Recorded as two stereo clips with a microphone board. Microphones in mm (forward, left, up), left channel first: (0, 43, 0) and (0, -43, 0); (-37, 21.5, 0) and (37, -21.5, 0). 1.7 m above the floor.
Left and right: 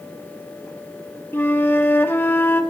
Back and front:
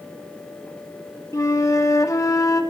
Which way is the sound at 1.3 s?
140° left.